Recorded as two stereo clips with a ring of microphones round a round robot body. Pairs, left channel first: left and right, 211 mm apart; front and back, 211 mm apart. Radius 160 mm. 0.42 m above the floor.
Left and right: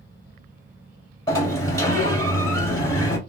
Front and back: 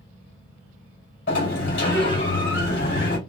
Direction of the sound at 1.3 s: 20° left.